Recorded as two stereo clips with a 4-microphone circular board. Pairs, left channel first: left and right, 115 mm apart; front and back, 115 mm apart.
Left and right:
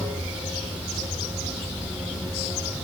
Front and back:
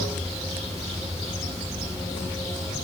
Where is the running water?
165° right, 1.3 m.